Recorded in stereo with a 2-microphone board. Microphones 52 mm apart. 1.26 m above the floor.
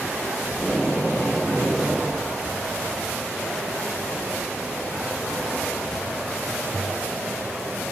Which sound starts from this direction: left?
Tape being pulled, at 0.5 s.